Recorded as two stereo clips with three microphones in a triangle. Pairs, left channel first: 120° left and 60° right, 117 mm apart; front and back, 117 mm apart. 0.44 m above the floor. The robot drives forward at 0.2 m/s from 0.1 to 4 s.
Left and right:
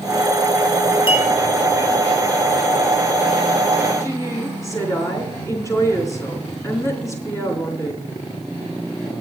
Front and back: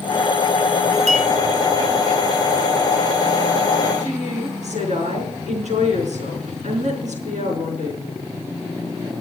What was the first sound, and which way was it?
A clink, 165° left.